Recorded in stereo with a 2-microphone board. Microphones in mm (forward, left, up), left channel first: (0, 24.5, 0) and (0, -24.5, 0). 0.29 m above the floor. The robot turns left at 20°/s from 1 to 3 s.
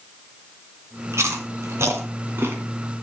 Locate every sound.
1.1 s chewing: 70° right (ahead or behind), 2 m; by 2.6 s 50° right (ahead or behind), 2 m